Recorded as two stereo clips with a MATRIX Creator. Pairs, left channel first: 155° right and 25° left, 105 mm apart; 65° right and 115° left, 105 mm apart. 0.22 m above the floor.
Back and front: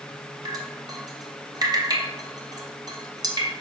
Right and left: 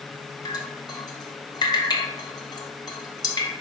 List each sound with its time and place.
0.5 s dripping: 25° right, 0.9 m